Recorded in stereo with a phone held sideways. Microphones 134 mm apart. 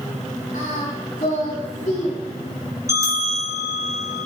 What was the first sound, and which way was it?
Singing, 85° left.